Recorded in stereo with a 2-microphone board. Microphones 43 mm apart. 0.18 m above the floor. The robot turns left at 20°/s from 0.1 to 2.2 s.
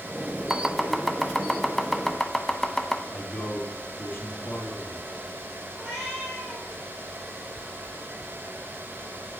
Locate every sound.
0.5 s chopping: 5° right (ahead or behind), 0.7 m; by 3.0 s 15° left (ahead or behind), 0.7 m
3.1 s a man speaking: 55° left (ahead or behind), 2.5 m
5.8 s a cat meowing: 5° left (ahead or behind), 3.5 m